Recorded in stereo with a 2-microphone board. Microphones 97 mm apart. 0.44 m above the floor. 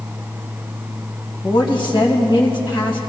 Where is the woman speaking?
60° left (ahead or behind), 2.5 m.